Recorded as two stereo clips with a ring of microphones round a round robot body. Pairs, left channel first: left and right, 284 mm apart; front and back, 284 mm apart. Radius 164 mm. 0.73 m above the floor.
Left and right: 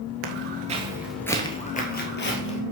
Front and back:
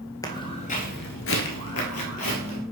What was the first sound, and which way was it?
Footsteps, 75° right.